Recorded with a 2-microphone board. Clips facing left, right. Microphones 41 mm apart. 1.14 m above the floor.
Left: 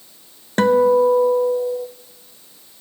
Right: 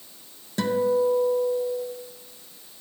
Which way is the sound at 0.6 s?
50° left (ahead or behind).